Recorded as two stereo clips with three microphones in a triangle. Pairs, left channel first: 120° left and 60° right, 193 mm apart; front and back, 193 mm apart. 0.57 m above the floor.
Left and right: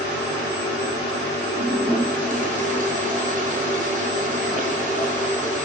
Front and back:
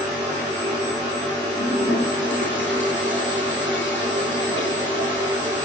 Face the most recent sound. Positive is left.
turn(degrees=-15)